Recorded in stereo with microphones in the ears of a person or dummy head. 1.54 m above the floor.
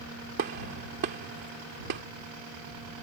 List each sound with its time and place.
0.4 s a gunshot: 55° right (ahead or behind)